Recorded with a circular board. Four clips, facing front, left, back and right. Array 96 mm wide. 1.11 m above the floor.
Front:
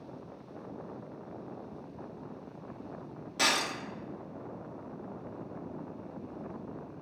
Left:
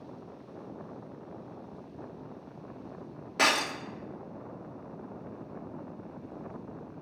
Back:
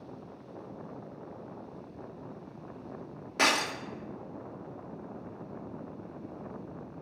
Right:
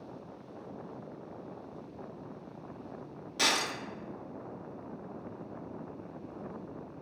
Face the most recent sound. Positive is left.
turn(degrees=125)